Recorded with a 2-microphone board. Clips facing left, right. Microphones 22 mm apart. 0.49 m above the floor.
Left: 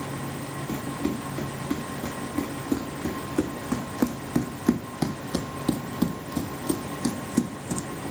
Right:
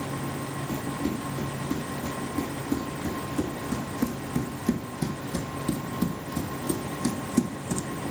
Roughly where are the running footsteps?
Left.